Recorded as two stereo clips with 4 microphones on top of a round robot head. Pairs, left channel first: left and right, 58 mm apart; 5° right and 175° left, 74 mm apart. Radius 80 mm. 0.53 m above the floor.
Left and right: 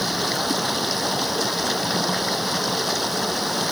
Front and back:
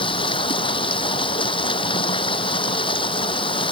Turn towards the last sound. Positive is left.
turn(degrees=0)